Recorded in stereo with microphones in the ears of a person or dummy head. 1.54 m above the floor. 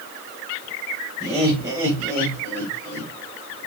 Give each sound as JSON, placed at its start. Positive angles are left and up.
{"t": 1.2, "sound": "laughter", "side_deg": -25, "distance_m": 6.5}